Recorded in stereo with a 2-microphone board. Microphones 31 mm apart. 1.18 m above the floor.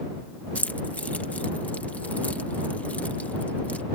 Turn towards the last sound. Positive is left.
turn(degrees=55)  # may be behind; listen again after turning